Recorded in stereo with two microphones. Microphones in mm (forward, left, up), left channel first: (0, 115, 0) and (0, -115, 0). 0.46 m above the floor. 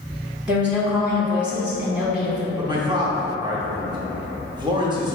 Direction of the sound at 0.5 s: 5° right (ahead or behind).